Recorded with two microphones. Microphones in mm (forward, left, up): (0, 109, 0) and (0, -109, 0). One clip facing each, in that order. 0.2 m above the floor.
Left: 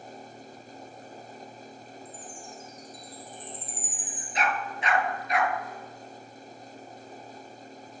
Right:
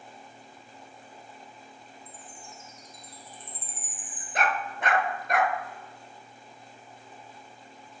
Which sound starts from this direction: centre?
A chime, at 2.0 s.